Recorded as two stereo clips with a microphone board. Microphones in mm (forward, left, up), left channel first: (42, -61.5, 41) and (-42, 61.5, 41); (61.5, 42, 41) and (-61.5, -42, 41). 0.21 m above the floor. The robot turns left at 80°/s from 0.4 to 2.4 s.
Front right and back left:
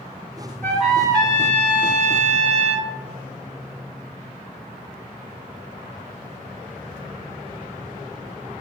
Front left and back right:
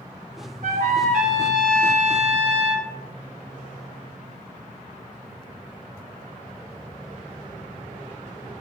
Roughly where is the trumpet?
Behind right.